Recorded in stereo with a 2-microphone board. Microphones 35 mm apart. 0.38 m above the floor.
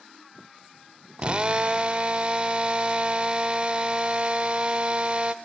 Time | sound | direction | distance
1.2 | a drill | 30° right (ahead or behind) | 0.6 m